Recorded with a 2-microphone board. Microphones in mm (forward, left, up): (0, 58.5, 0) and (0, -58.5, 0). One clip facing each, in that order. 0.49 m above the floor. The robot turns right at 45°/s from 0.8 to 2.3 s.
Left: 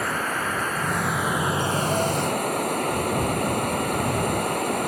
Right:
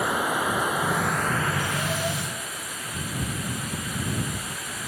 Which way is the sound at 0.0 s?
10° right.